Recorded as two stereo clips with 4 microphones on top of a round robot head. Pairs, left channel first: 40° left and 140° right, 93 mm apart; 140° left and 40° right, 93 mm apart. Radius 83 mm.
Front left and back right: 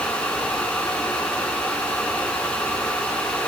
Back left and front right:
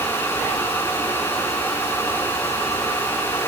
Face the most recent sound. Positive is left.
No sound to turn to.